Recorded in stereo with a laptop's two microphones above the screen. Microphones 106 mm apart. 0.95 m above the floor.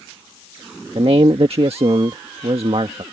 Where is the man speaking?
65° right (ahead or behind).